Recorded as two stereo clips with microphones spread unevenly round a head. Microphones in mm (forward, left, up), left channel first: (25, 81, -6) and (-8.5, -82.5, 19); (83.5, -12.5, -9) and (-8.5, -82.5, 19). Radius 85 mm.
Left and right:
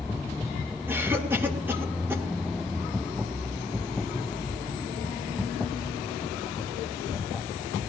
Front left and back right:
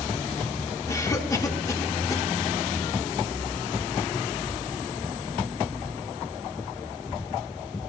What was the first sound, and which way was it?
A cough, 20° right.